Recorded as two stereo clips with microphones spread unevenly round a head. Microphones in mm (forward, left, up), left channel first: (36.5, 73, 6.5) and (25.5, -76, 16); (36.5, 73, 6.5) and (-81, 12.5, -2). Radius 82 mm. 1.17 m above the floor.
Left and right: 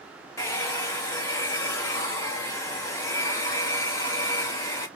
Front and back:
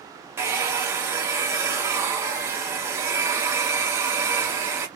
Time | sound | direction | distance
0.4 | a hair dryer | 150° left | 0.6 m